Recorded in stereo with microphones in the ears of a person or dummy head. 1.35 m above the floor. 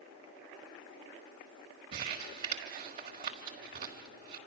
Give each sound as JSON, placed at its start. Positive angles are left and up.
{"t": 1.9, "sound": "crumpling", "side_deg": -30, "distance_m": 1.3}